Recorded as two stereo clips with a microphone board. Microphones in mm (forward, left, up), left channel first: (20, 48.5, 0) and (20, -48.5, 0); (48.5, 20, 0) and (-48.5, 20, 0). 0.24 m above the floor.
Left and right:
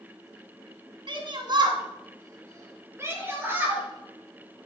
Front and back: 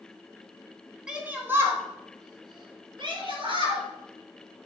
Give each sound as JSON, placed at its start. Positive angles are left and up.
{"t": 1.1, "sound": "a shout", "azimuth_deg": -100, "distance_m": 2.5}